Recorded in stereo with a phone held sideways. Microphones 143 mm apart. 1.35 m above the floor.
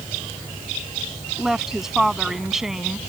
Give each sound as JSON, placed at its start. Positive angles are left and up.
{"t": 1.4, "sound": "a woman speaking", "side_deg": -5}